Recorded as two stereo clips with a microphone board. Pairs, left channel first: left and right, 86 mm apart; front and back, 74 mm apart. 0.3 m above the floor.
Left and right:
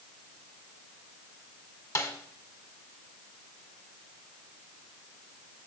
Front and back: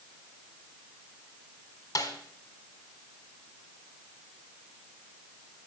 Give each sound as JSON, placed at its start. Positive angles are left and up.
{"t": 1.9, "sound": "a snare drum", "azimuth_deg": 40, "distance_m": 1.8}